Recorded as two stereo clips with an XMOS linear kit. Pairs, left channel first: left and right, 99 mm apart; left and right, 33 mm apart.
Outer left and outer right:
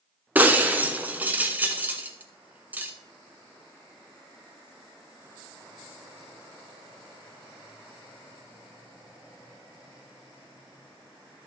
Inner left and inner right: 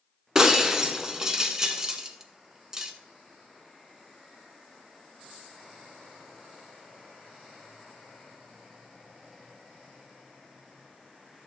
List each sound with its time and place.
0.3 s breaking glass: 20° right (ahead or behind), 0.9 m